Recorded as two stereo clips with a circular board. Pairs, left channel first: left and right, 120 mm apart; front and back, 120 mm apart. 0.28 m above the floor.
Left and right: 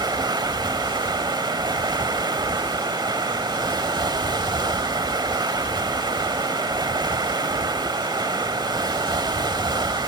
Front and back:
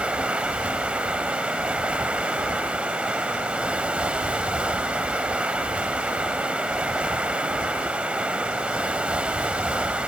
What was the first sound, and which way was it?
Running water, 105° right.